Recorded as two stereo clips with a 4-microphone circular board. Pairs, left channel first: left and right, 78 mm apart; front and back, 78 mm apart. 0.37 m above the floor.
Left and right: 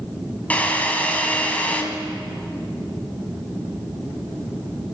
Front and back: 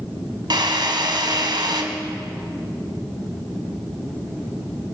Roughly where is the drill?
Behind.